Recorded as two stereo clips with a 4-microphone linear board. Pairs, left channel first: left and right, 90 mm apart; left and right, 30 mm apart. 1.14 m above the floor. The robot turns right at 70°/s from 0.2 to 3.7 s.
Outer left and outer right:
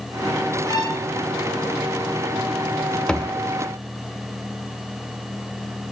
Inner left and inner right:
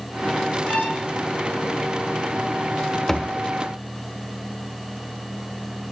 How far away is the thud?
About 0.8 m.